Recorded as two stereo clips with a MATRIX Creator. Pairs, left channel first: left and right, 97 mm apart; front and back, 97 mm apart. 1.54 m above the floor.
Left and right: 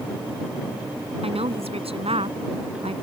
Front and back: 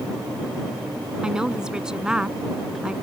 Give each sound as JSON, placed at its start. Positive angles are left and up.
{"t": 1.2, "sound": "a woman speaking", "azimuth_deg": -95}